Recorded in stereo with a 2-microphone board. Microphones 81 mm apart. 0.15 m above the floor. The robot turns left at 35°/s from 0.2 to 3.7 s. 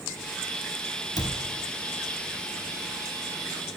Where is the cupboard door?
55° left (ahead or behind), 1.3 m.